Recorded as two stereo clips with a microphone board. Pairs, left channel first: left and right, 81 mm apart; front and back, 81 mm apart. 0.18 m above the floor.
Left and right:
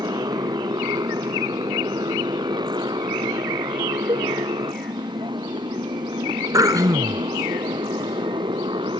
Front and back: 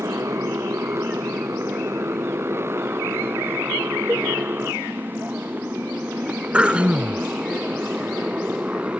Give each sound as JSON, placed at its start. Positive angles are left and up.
{"t": 0.0, "sound": "a motorcycle", "azimuth_deg": -125}
{"t": 4.1, "sound": "a cowbell", "azimuth_deg": -120}
{"t": 6.5, "sound": "throat clearing", "azimuth_deg": -110}